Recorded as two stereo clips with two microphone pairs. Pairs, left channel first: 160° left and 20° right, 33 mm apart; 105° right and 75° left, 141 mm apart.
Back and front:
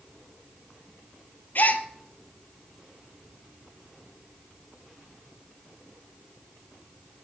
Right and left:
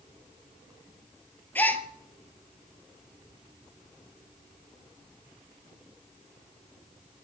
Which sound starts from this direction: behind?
A gasp, at 1.6 s.